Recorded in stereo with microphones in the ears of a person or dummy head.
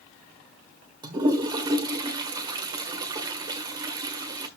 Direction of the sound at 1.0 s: 30° right (ahead or behind).